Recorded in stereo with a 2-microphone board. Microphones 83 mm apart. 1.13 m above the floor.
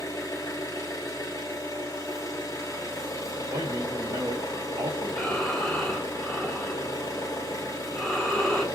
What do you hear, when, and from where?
0.0 s an engine running: 40° left (ahead or behind), 0.8 m
3.5 s a man speaking: 60° right (ahead or behind), 0.6 m
5.1 s breathing: 10° left (ahead or behind), 0.6 m